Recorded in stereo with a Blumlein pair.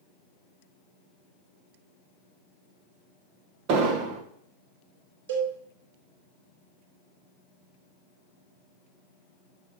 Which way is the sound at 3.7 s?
40° right.